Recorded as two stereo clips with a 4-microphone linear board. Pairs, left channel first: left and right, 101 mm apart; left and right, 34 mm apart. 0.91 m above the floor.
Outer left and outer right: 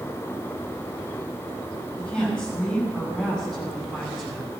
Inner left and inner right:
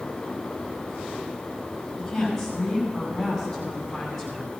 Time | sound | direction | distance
2.0 | a woman speaking | 10° left (ahead or behind) | 6 m